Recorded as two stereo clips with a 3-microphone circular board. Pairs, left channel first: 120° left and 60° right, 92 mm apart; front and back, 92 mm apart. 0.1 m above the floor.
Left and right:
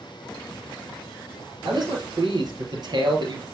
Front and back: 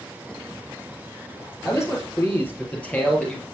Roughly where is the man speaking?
Ahead right.